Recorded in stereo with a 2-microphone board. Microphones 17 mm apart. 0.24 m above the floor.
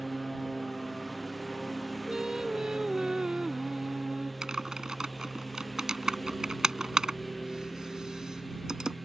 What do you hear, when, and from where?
0.0 s a lawn mower: 5° left (ahead or behind)
2.1 s singing: 40° right (ahead or behind)
4.4 s typing on a keyboard: 35° right (ahead or behind)